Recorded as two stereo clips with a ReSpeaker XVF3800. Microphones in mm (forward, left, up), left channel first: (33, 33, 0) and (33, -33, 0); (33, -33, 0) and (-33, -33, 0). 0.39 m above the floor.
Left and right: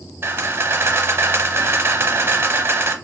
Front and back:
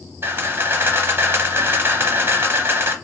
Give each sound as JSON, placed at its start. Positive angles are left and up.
{"t": 0.2, "sound": "a camera shutter", "azimuth_deg": -135, "distance_m": 0.6}